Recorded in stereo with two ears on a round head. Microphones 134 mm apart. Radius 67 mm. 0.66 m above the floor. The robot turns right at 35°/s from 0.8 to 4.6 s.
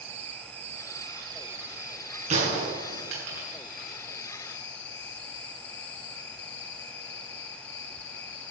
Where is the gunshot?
45° right (ahead or behind), 6 m; by 3.5 s 85° right, 6 m.